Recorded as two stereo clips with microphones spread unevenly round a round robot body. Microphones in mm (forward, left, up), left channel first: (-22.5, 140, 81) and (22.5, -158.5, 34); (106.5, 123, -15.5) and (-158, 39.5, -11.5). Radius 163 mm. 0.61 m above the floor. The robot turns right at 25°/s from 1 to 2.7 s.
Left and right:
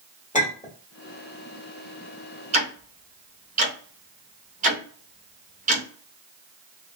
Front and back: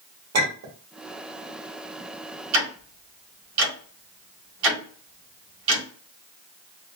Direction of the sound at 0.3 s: 170° left.